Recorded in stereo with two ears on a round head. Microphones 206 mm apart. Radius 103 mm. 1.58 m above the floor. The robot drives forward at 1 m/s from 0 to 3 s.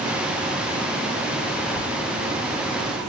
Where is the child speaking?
75° left (ahead or behind), 1.5 m; by 3.0 s 50° left (ahead or behind), 1.8 m.